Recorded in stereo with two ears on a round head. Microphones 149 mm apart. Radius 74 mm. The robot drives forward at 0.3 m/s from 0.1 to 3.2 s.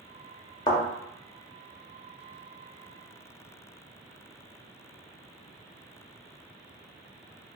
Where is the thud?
25° left (ahead or behind), 0.8 m.